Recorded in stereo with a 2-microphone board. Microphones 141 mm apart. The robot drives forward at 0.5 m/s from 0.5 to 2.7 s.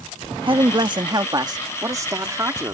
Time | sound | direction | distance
0.5 | a man speaking | 40° right (ahead or behind) | ?